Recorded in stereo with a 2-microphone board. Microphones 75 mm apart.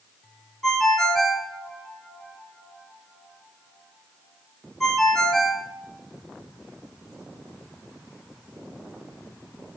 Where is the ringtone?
5° left (ahead or behind), 0.9 m.